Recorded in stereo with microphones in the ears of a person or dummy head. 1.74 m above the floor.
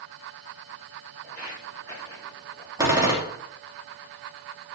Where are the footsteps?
10° left (ahead or behind), 4.5 m; by 2.7 s 30° left (ahead or behind), 5 m.